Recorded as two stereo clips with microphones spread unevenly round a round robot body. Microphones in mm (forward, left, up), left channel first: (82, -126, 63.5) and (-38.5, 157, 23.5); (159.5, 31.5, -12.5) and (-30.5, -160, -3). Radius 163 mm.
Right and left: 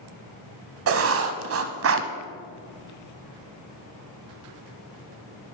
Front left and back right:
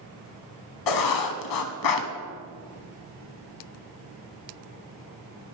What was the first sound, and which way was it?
Writing, 65° left.